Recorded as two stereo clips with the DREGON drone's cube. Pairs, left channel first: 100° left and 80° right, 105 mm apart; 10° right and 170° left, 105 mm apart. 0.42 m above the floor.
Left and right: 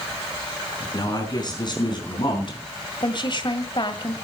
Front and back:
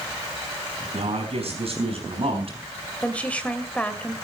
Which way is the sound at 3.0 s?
65° left.